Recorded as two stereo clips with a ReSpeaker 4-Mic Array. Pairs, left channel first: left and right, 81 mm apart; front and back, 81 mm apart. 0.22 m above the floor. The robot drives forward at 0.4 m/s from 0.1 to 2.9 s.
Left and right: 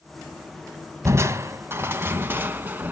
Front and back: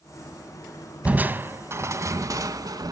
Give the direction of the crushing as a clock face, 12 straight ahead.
4 o'clock.